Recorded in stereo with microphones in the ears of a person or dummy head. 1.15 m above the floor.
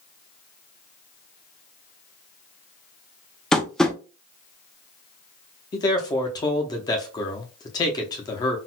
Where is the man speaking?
25° left (ahead or behind), 0.6 m.